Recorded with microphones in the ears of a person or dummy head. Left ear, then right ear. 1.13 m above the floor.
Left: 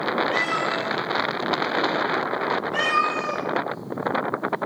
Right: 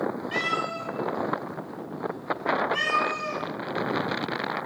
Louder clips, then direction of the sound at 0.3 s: Left 4 dB; centre (ahead or behind).